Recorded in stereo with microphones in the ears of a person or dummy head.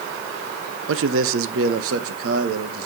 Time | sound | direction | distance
0.9 | a man speaking | 70° right (ahead or behind) | 1.0 m